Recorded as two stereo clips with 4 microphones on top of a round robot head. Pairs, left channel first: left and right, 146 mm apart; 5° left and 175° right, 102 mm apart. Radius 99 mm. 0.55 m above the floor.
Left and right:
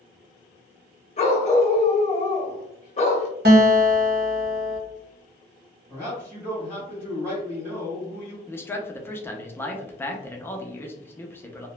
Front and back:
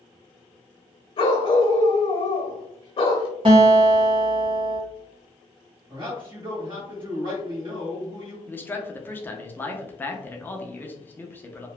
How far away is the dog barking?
About 0.7 m.